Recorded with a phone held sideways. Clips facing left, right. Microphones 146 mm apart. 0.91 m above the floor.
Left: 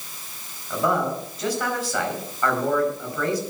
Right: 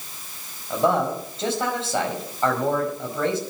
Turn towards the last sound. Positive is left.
turn(degrees=-25)  # may be behind; listen again after turning